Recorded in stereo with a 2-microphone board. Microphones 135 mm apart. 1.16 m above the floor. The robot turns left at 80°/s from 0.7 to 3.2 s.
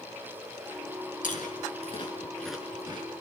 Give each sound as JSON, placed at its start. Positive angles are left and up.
{"t": 1.2, "sound": "chewing", "side_deg": 75, "distance_m": 4.5}